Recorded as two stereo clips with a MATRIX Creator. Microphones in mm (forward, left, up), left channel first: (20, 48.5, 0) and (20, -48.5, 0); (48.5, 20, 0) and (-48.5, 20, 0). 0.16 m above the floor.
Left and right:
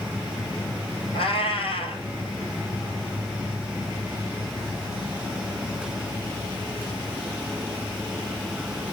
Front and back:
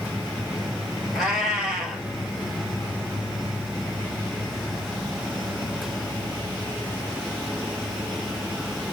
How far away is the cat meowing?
About 1.2 m.